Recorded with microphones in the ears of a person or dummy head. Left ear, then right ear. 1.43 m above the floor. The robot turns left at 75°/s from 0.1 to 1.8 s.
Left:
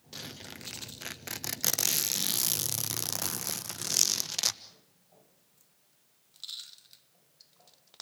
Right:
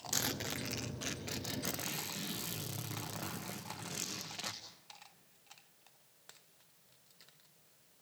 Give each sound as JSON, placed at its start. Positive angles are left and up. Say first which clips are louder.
{"t": 0.1, "sound": "a zipper", "louder": "right 5 dB", "azimuth_deg": -130, "distance_m": 1.2}